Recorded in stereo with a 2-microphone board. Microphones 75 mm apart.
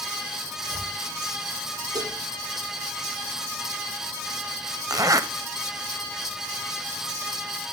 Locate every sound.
0.6 s chopping: 60° left (ahead or behind), 7 m
1.9 s dishes clattering: 60° right (ahead or behind), 6.5 m
4.9 s a zipper: 55° right (ahead or behind), 0.6 m